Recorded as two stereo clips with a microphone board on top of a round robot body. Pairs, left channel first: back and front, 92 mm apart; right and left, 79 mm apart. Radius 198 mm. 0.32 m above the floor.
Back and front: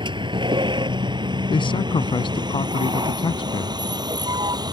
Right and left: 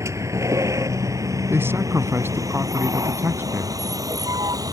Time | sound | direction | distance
0.0 | a vehicle | 35° left | ?
1.5 | a man speaking | 150° left | ?